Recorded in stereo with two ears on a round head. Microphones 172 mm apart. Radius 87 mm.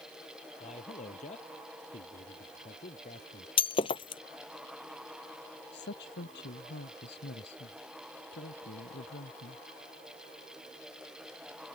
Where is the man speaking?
40° left (ahead or behind).